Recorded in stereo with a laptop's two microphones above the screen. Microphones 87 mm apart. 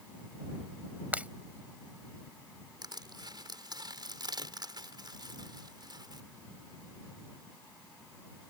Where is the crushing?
55° right (ahead or behind).